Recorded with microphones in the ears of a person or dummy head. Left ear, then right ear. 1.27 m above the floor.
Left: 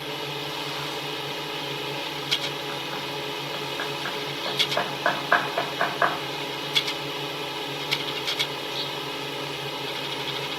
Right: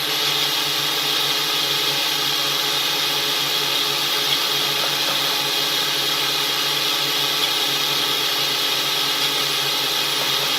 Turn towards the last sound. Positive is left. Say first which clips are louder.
# right 11 dB
turn(degrees=-50)  # may be behind; listen again after turning